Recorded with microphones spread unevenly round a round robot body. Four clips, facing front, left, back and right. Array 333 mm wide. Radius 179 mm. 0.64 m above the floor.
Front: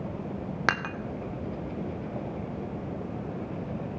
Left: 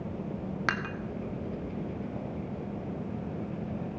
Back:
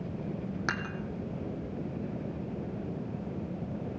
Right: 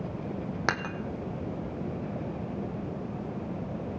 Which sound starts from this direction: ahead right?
Dishes clattering, at 0.7 s.